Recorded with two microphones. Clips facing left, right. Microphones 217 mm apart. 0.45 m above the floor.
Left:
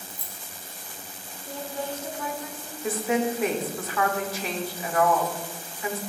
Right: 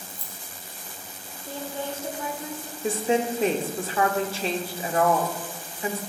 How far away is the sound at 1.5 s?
About 1.2 m.